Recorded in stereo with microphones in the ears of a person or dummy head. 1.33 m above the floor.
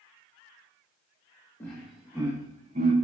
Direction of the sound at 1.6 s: 10° left (ahead or behind).